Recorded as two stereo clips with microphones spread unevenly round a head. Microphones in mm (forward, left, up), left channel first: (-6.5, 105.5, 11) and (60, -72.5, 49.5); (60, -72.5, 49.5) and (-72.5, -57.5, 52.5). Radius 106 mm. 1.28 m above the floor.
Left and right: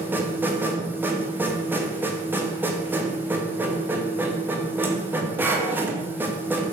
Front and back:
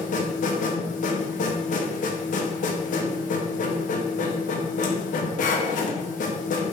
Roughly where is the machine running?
Ahead.